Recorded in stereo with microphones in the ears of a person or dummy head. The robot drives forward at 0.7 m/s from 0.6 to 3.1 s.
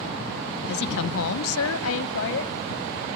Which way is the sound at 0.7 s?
55° left (ahead or behind).